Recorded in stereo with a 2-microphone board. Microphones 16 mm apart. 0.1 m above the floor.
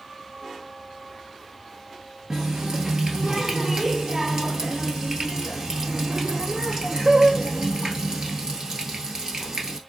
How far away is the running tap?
About 1.2 m.